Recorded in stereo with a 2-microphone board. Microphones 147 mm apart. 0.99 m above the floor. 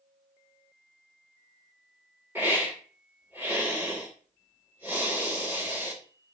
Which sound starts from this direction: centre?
A hiss, at 2.4 s.